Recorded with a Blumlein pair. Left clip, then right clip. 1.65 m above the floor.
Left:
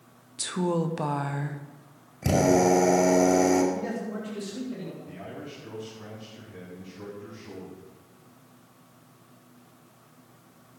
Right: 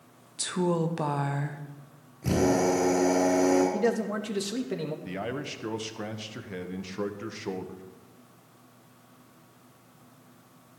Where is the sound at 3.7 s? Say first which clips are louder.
Right 6 dB; 35° right, 2 m.